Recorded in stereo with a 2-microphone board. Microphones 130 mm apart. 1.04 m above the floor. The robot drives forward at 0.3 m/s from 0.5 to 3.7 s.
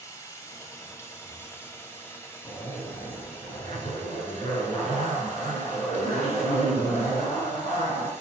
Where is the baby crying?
No baby crying in this recording.